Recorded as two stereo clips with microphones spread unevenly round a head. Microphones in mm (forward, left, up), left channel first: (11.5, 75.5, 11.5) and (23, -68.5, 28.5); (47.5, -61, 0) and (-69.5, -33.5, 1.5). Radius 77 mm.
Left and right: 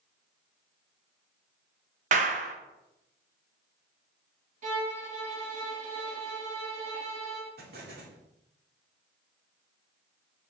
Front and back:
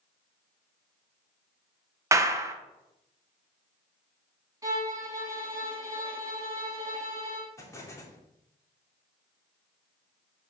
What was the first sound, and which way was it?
A clap, 130° right.